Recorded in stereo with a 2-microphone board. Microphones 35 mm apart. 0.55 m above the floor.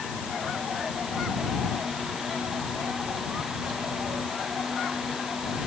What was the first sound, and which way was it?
Only background noise.